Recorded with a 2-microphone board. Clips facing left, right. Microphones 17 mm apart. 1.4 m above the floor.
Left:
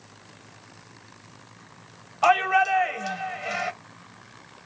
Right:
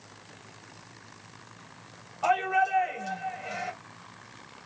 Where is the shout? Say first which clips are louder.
Left 5 dB; 45° left (ahead or behind), 0.8 m.